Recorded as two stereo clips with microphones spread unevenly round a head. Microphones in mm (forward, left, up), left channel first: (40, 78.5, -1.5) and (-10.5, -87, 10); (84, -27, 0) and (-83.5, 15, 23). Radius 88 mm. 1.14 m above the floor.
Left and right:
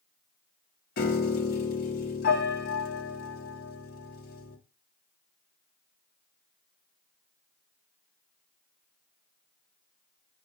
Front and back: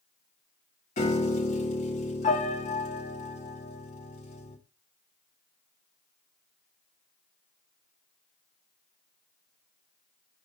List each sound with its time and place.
1.0 s a piano: 40° left, 1.3 m